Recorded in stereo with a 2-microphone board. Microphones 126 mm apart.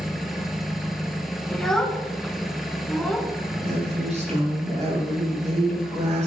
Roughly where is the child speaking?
Centre.